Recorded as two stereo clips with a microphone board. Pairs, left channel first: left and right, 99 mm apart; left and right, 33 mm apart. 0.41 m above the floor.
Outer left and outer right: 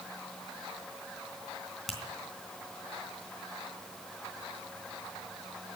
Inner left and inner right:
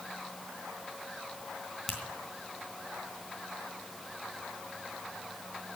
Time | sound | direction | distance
1.9 | a finger snap | centre (ahead or behind) | 3.5 m